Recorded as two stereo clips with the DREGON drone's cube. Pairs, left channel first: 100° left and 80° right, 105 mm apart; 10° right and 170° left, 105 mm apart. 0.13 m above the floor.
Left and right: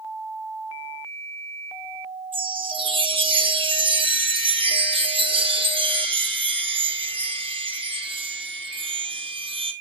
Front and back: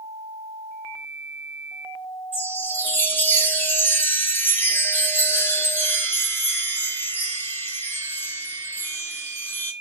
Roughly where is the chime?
Right.